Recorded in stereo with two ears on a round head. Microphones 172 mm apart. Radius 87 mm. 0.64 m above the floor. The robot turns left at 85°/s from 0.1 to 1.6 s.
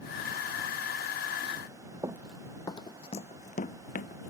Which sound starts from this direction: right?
Running footsteps, at 2.0 s.